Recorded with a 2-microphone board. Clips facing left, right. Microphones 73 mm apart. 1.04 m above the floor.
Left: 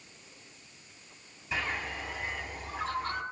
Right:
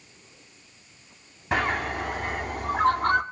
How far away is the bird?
About 1.2 m.